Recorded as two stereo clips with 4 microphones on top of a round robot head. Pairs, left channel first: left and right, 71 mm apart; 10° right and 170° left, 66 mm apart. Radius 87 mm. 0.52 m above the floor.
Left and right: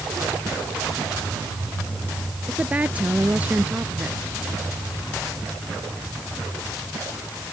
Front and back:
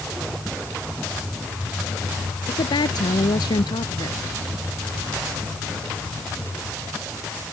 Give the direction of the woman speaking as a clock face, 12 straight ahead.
1 o'clock.